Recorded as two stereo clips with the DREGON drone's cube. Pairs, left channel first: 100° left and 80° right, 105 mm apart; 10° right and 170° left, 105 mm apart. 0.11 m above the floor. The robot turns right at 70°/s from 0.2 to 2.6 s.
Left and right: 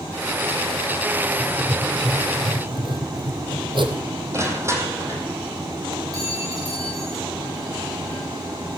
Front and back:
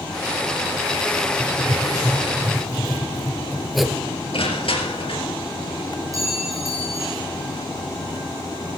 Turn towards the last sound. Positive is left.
turn(degrees=-135)